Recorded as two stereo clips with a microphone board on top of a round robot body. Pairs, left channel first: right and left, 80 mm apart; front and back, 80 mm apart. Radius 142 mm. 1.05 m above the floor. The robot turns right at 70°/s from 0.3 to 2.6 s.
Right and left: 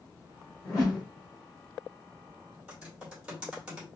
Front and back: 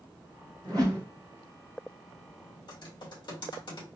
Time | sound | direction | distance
0.6 | a whoosh | 145° right | 1.7 m
2.7 | typing on a keyboard | 10° left | 2 m